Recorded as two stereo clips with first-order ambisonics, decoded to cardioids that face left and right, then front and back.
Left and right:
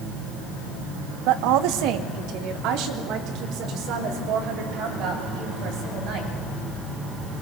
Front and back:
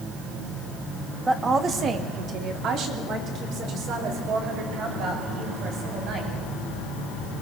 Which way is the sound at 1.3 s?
100° right.